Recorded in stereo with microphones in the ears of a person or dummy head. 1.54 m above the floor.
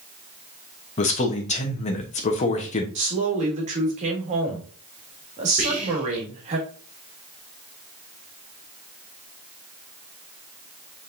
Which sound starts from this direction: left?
A man speaking, at 1.0 s.